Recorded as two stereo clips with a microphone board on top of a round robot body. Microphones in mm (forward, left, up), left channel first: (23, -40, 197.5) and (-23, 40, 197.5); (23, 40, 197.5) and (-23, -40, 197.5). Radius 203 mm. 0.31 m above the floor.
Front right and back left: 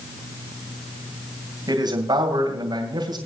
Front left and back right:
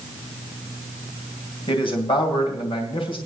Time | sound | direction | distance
1.7 | a man speaking | 80° left | 2.5 m